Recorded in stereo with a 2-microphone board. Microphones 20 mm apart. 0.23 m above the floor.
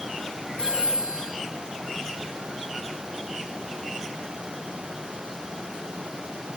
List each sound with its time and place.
0.6 s a phone ringing: 45° left (ahead or behind), 1.4 m